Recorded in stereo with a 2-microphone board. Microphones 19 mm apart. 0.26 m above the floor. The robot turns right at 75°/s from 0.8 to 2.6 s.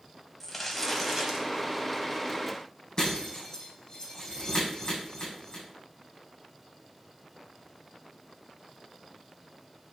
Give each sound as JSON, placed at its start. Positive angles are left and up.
{"t": 0.4, "sound": "crumpling", "azimuth_deg": 175, "distance_m": 1.7}
{"t": 3.0, "sound": "breaking glass", "side_deg": 30, "distance_m": 5.0}